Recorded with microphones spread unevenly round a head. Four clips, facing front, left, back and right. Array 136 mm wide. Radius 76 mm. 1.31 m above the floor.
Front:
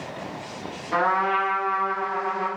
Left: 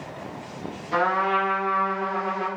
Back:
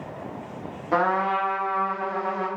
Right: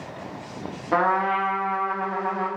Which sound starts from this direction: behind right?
A trumpet, at 0.9 s.